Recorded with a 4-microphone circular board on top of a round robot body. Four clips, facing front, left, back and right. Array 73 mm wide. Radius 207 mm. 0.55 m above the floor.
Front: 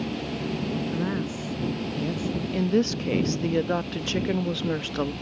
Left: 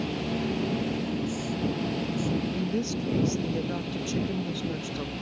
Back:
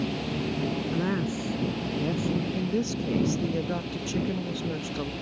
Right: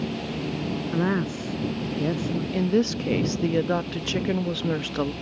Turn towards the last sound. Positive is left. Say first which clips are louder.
# right 6 dB, front 5 dB
turn(degrees=-50)